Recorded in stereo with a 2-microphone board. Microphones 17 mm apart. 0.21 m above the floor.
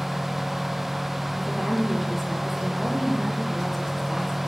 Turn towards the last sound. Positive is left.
turn(degrees=-5)  # may be behind; listen again after turning